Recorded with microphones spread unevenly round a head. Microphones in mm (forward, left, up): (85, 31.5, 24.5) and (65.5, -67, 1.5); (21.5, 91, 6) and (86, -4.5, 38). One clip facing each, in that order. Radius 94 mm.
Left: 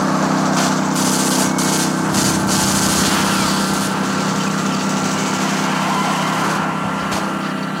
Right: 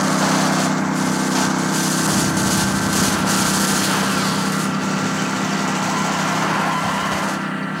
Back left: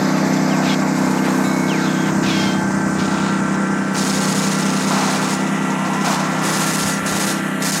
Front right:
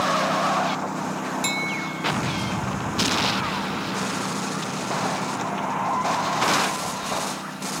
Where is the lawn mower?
155° left; by 7.8 s 150° left.